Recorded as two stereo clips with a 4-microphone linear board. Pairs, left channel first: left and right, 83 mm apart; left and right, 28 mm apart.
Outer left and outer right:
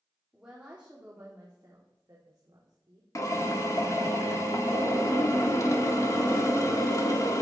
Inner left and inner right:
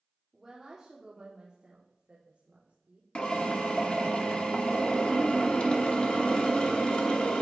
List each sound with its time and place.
0.3 s a woman speaking: 5° right (ahead or behind), 1.6 m; by 3.0 s 55° right (ahead or behind), 2 m
3.1 s a drill: 40° left (ahead or behind), 1.5 m